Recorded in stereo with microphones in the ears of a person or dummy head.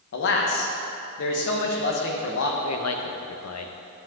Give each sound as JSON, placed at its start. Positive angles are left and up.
{"t": 0.1, "sound": "a man speaking", "side_deg": 60, "distance_m": 1.2}
{"t": 2.6, "sound": "a man speaking", "side_deg": 70, "distance_m": 0.7}